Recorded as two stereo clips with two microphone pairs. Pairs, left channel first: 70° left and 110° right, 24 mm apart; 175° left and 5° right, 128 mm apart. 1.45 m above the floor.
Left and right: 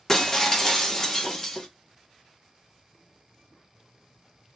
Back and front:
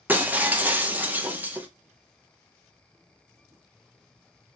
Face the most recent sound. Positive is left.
turn(degrees=35)